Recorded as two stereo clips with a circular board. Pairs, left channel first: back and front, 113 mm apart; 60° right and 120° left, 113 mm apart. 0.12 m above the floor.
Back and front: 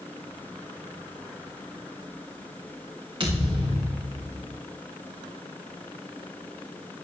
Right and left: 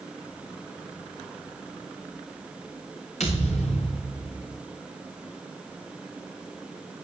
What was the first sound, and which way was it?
A thud, 50° right.